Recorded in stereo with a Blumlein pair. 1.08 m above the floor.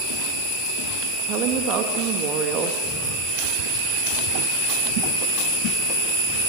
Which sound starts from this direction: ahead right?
A woman speaking, at 1.3 s.